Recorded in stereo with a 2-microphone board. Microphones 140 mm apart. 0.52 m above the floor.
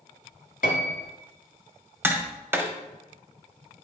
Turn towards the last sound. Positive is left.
turn(degrees=-15)  # may be behind; listen again after turning